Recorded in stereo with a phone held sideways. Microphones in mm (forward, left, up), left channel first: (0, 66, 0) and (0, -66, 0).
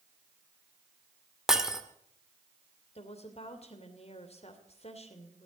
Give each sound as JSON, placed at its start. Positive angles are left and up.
{"t": 1.5, "sound": "breaking glass", "side_deg": -5, "distance_m": 1.6}
{"t": 3.0, "sound": "a woman speaking", "side_deg": 55, "distance_m": 2.5}